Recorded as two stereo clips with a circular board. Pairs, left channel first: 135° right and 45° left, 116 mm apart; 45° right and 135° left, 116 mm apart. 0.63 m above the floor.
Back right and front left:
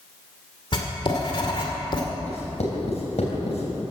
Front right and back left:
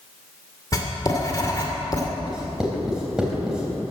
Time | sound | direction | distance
0.7 | writing | 100° right | 2 m
2.2 | writing | 140° right | 3.5 m